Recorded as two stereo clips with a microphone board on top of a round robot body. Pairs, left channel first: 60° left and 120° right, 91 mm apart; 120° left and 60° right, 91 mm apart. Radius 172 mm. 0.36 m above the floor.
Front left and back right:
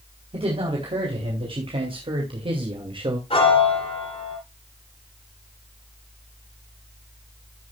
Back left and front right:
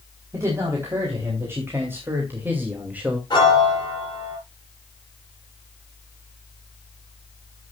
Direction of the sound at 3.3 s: 80° left.